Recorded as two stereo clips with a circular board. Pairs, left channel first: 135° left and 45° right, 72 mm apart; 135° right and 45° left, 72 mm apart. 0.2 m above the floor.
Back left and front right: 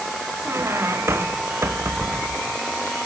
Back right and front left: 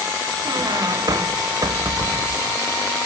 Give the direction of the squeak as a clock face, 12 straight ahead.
12 o'clock.